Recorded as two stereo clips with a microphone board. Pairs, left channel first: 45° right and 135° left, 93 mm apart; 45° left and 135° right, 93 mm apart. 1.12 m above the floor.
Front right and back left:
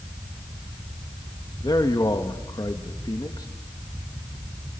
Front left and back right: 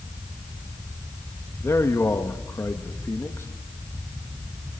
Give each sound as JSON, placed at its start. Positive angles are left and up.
{"t": 1.6, "sound": "a man speaking", "azimuth_deg": -10, "distance_m": 1.7}